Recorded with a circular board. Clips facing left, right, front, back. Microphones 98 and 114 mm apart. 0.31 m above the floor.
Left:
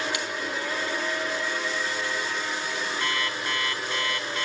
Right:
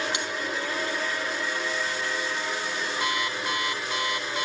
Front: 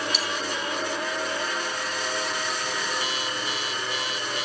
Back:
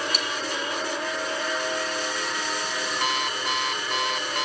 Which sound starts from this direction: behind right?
A bell, at 0.1 s.